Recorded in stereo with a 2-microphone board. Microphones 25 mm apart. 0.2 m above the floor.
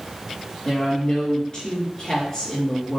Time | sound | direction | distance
0.7 | a woman speaking | 35° left (ahead or behind) | 3.5 m